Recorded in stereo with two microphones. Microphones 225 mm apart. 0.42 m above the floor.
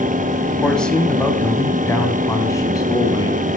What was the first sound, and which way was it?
A man speaking, centre (ahead or behind).